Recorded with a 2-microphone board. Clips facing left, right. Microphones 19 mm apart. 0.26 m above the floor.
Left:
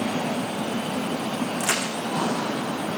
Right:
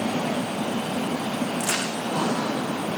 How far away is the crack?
About 8.5 m.